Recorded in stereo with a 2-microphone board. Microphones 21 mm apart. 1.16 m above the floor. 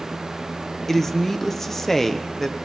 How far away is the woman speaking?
About 0.6 m.